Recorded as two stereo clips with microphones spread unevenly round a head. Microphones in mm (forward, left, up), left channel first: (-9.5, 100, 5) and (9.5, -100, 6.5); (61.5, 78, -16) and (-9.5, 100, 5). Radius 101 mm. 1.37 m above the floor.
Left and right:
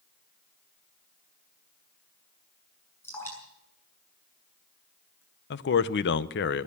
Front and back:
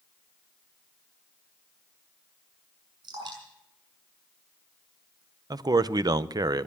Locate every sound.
3.0 s dripping: 175° left, 7 m
5.5 s a man speaking: 135° left, 0.7 m